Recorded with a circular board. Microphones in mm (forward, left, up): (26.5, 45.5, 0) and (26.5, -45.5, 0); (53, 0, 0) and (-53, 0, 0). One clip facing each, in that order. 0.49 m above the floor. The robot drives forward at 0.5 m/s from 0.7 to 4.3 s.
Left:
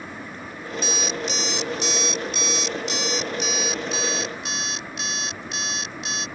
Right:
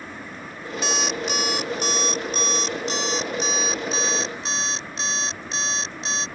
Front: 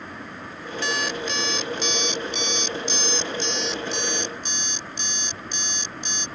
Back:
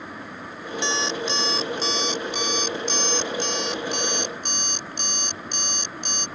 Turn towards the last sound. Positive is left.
turn(degrees=-150)